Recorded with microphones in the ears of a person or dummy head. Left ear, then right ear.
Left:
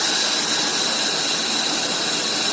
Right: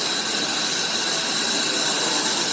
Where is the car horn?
No car horn in this recording.